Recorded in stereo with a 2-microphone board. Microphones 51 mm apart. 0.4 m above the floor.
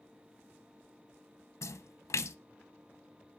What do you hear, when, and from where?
1.6 s a splash: 75° left (ahead or behind), 0.5 m